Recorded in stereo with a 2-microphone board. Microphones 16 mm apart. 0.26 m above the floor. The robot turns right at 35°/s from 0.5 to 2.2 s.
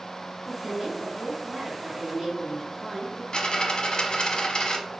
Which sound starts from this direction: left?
A dropped coin, at 3.3 s.